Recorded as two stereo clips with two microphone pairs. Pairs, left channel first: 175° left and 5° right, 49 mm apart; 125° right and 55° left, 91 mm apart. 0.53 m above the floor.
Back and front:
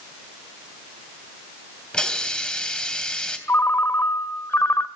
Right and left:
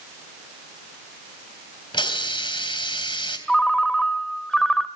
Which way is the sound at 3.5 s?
155° left.